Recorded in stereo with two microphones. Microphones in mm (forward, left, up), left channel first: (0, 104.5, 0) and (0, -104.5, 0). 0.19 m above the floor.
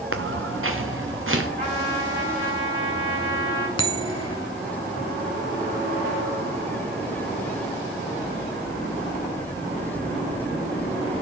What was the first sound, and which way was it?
Footsteps, 85° right.